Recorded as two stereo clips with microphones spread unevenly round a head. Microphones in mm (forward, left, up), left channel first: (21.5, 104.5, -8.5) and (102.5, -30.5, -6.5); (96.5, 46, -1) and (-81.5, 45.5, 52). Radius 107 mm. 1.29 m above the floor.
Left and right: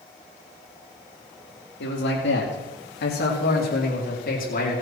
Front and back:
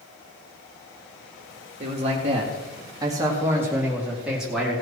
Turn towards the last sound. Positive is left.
turn(degrees=90)